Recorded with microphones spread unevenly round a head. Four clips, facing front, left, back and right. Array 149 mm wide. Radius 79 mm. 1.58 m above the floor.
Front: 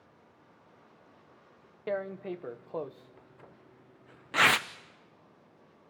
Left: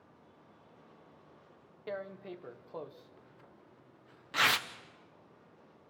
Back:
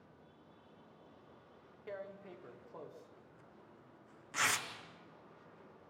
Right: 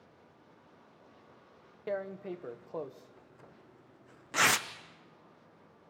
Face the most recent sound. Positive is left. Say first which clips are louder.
# right 5 dB, front 13 dB
turn(degrees=-25)